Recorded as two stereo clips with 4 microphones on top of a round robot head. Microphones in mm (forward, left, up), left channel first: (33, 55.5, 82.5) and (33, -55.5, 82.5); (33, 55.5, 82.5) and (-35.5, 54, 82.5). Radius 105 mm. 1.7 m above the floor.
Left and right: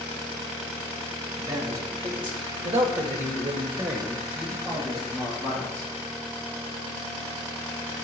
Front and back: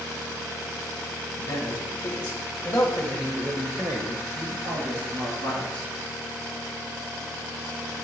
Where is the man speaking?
35° right, 2 m; by 5.9 s straight behind, 2.5 m.